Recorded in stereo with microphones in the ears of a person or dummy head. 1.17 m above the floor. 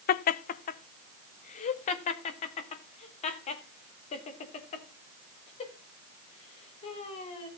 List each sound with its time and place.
0.1 s laughter: 45° left (ahead or behind), 0.8 m; by 7.5 s 30° left (ahead or behind), 4.5 m